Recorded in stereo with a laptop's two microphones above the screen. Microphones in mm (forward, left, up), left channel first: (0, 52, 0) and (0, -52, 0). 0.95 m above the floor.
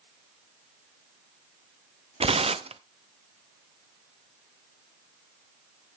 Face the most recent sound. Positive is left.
turn(degrees=-70)  # may be behind; listen again after turning